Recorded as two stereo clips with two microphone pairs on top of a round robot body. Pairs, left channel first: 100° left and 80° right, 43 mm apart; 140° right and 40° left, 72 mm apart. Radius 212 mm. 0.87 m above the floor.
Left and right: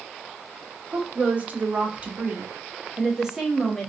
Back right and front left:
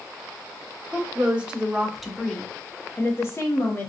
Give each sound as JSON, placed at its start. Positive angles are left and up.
{"t": 0.9, "sound": "a woman speaking", "azimuth_deg": -25, "distance_m": 1.2}